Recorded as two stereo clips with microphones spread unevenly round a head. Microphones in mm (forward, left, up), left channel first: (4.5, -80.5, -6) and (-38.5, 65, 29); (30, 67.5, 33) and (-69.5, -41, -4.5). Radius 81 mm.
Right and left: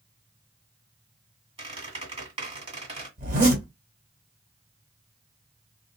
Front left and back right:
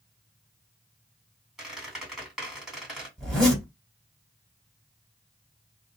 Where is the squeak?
130° left, 1.8 m.